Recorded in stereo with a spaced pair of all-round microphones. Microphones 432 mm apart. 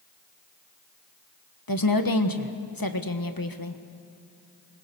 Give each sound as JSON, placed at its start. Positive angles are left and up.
{"t": 1.7, "sound": "a woman speaking", "side_deg": 50, "distance_m": 1.4}